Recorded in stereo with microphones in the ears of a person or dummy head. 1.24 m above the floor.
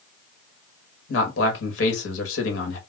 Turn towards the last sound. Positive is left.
turn(degrees=70)  # may be behind; listen again after turning